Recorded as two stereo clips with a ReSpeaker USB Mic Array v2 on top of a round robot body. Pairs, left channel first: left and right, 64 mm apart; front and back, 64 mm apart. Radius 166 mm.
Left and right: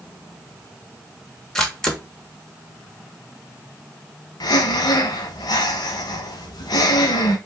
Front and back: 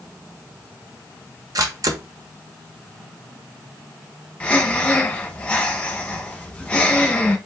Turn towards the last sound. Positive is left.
turn(degrees=70)